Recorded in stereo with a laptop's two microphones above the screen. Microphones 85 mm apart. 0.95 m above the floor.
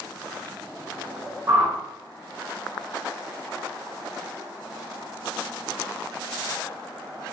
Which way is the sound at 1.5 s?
40° right (ahead or behind).